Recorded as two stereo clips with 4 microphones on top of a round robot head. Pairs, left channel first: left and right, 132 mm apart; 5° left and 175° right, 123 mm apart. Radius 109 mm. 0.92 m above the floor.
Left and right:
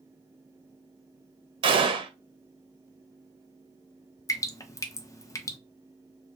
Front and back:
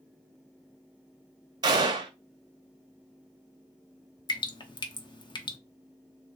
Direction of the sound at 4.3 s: 35° left.